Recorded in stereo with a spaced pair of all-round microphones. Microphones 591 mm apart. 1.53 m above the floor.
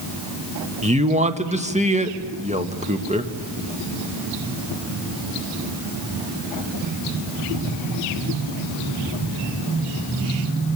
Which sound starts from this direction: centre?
A man speaking, at 0.8 s.